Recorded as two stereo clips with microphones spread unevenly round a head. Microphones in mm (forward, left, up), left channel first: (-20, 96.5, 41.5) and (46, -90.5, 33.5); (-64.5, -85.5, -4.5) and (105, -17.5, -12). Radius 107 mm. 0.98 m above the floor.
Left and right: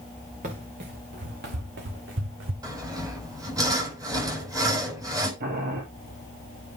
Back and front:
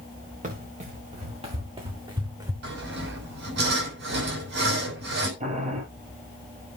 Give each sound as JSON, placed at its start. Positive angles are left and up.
{"t": 0.4, "sound": "running footsteps", "azimuth_deg": -25, "distance_m": 6.0}
{"t": 2.6, "sound": "sawing", "azimuth_deg": 5, "distance_m": 6.0}
{"t": 5.4, "sound": "boiling", "azimuth_deg": -30, "distance_m": 4.0}